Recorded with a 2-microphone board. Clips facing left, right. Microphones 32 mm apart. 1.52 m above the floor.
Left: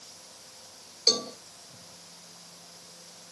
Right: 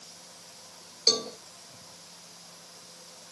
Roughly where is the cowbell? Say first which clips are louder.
Even; centre.